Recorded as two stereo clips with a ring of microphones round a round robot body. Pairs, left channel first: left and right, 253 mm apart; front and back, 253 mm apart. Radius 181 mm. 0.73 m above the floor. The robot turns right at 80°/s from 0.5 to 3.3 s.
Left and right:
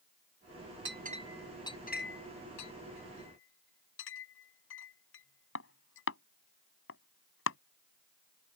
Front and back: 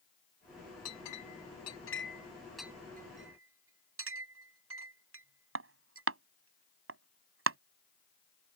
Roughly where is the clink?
Ahead right.